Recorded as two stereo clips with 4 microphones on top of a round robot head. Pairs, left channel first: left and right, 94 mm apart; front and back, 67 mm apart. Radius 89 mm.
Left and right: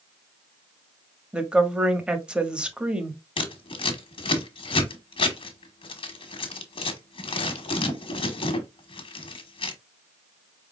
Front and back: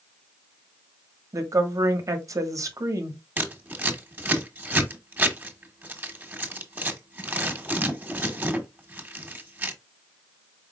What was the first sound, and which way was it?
A woman speaking, 165° right.